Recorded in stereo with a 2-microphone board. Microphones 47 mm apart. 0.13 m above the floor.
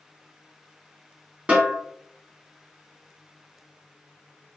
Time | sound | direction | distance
1.5 | a snare drum | 25° right (ahead or behind) | 1.2 m